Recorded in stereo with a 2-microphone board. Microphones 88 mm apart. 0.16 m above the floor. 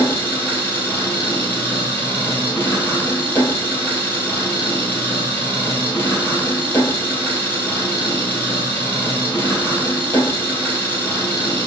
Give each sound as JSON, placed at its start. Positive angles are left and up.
{"t": 0.0, "sound": "an engine running", "side_deg": 25, "distance_m": 1.5}